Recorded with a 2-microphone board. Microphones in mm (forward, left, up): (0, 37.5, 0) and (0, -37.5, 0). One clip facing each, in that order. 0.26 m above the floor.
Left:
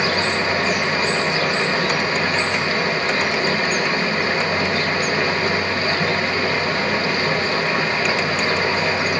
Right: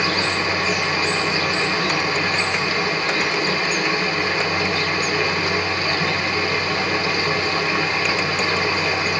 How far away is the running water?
About 1.4 m.